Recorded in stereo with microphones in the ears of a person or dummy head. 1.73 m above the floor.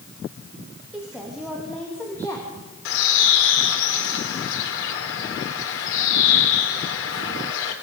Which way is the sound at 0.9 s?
5° right (ahead or behind).